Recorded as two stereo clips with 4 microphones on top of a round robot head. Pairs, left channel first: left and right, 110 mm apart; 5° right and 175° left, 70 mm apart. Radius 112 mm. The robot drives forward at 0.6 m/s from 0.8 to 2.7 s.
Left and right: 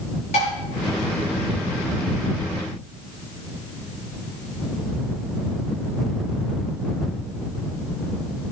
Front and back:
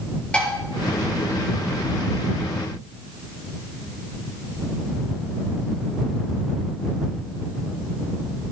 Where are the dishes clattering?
70° left, 6.5 m.